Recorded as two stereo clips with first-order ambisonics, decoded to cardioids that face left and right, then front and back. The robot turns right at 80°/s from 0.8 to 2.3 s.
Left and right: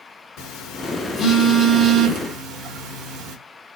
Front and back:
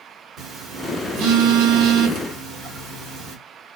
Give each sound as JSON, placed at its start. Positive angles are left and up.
{"t": 0.4, "sound": "a phone buzzing", "azimuth_deg": 120, "distance_m": 1.4}